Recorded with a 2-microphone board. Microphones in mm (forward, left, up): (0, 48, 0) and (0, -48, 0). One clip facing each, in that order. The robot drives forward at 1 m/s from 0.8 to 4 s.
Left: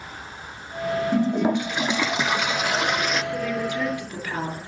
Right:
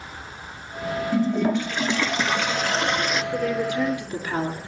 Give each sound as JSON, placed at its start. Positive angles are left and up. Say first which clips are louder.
{"t": 1.1, "sound": "a toilet flushing", "louder": "right 1 dB", "side_deg": 20, "distance_m": 0.7}
{"t": 3.3, "sound": "a woman speaking", "louder": "right 2 dB", "side_deg": -20, "distance_m": 6.5}